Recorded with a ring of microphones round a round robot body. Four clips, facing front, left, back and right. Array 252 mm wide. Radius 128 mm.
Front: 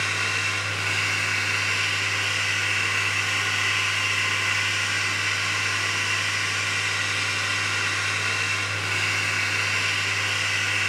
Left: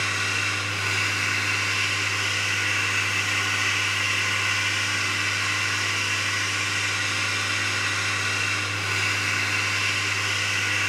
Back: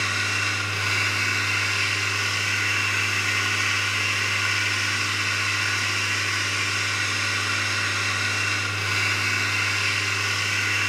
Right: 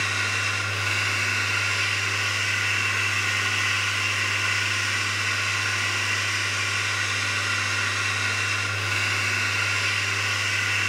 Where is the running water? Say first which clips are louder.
Even, back 1 dB; 175° left, 3 m.